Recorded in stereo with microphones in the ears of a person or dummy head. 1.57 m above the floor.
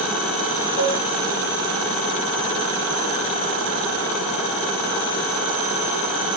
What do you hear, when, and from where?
0.8 s dishes clattering: 10° left (ahead or behind), 2.5 m